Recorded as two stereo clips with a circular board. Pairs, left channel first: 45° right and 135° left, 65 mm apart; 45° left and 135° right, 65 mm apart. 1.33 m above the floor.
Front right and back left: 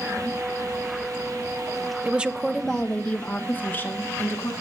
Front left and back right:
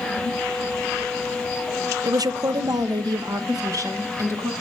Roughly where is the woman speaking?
Behind.